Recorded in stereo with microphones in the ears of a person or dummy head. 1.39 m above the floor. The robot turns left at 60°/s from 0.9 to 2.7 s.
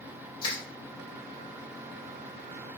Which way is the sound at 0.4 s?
25° left (ahead or behind).